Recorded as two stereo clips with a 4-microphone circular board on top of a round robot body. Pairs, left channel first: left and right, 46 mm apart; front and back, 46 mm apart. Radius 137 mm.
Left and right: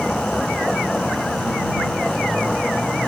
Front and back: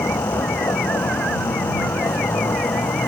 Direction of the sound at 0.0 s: 5° left.